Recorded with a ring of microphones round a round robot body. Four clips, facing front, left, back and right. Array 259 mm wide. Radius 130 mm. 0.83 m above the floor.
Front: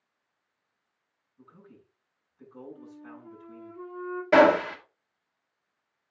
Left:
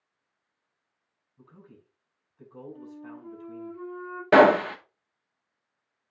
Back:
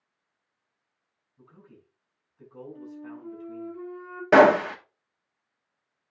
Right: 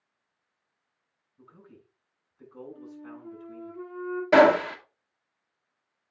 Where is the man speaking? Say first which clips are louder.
Even, even; 115° left, 6.5 m.